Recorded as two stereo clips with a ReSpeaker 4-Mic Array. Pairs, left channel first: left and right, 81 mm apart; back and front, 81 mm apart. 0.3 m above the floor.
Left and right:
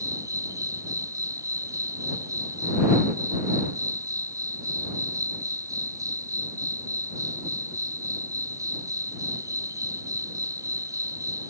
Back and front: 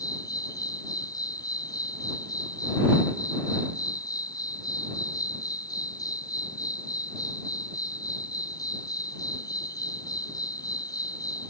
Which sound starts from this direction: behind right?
An insect, at 0.0 s.